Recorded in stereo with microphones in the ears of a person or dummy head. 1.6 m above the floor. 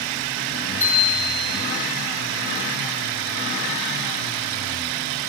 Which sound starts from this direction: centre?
A bicycle bell, at 0.8 s.